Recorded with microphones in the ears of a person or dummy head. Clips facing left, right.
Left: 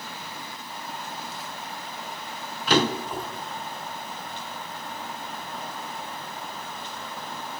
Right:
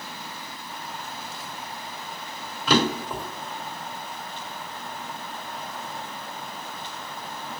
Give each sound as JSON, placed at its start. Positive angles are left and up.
{"t": 2.7, "sound": "a drawer", "side_deg": -70, "distance_m": 1.4}